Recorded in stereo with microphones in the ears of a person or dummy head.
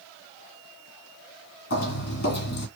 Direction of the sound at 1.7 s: 55° left (ahead or behind).